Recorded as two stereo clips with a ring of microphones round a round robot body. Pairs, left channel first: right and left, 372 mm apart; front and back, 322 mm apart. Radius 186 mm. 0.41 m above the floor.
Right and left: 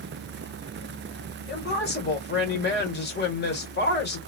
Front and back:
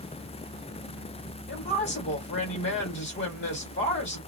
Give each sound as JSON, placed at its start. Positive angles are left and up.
{"t": 1.5, "sound": "a woman speaking", "azimuth_deg": -40, "distance_m": 1.0}